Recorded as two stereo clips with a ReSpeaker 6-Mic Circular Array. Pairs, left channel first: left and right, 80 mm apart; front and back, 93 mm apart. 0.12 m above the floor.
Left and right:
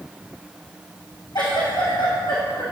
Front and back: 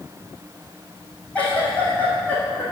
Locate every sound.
1.4 s a giggle: 75° left, 3 m